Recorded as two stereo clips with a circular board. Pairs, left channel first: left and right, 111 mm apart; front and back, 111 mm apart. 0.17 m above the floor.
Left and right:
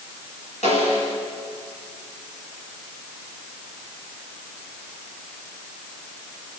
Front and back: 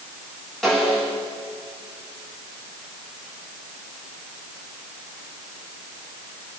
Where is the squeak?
No squeak in this recording.